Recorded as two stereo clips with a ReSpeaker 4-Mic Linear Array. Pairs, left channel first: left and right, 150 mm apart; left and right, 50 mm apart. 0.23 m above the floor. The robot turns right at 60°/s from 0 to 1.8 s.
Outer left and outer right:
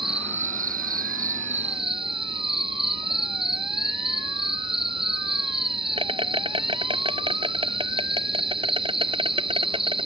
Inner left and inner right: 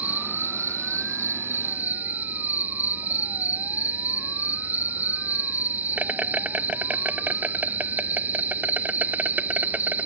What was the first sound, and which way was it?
An insect, 145° right.